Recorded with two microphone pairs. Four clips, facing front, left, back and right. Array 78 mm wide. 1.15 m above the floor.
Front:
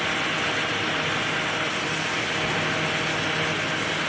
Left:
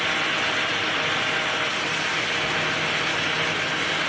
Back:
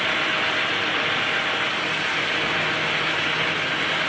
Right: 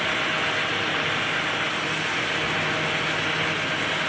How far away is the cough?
I don't hear a cough.